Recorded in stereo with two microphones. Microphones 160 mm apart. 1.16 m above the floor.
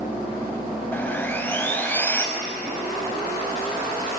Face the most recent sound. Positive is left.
turn(degrees=10)  # may be behind; listen again after turning